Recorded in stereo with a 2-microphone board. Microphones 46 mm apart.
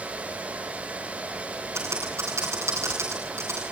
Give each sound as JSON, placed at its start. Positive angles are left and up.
{"t": 1.8, "sound": "typing on a keyboard", "side_deg": -80, "distance_m": 9.0}